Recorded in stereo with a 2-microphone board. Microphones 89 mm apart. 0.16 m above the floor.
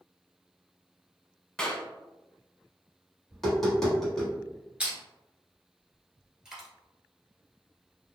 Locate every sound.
1.6 s a clap: 10° left (ahead or behind), 0.9 m
3.3 s tapping: 5° left (ahead or behind), 1.7 m
4.8 s crushing: 15° right (ahead or behind), 1.2 m
6.5 s a dropped coin: 10° right (ahead or behind), 1.3 m